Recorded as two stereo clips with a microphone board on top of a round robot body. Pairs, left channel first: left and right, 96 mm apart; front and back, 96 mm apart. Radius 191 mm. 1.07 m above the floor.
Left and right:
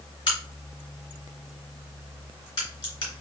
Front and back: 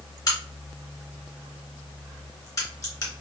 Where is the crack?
50° left, 3 m.